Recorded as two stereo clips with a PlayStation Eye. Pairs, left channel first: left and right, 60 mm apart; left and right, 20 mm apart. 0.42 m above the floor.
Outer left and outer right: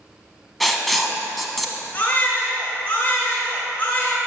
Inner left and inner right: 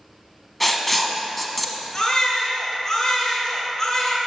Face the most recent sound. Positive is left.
turn(degrees=25)  # may be behind; listen again after turning